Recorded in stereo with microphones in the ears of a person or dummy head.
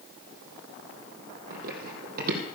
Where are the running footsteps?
50° right (ahead or behind), 3 m.